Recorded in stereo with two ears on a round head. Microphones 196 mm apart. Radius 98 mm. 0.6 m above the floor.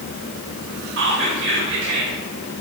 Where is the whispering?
55° right (ahead or behind), 1.3 m.